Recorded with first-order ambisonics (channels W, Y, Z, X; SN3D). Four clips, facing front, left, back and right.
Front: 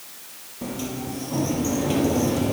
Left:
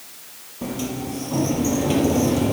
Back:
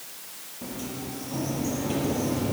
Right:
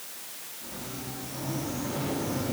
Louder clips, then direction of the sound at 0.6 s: Left 13 dB, front 5 dB; 65° left.